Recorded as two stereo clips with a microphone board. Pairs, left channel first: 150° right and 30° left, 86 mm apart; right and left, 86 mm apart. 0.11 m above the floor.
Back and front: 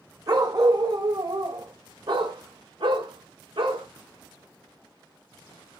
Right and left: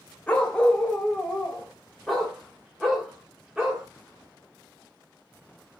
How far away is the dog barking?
About 2.5 m.